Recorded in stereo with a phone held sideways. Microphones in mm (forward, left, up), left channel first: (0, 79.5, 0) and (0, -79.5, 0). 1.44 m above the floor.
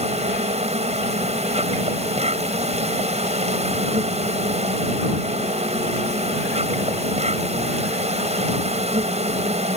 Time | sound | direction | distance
0.0 | an insect | 45° right (ahead or behind) | ?